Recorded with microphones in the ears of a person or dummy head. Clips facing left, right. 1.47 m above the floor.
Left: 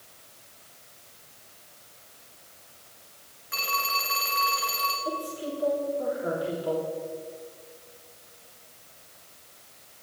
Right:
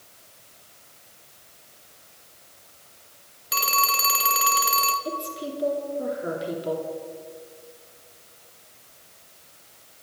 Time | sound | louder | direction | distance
3.5 | a phone ringing | right 5 dB | 50° right (ahead or behind) | 0.8 m
5.0 | a woman speaking | right 1 dB | 25° right (ahead or behind) | 3 m